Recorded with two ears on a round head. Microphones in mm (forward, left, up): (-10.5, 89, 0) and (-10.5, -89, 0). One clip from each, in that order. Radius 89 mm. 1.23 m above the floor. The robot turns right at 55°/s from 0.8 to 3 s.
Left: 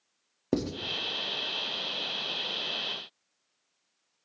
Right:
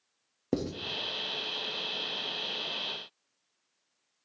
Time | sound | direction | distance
0.5 | writing | 10° left (ahead or behind) | 0.6 m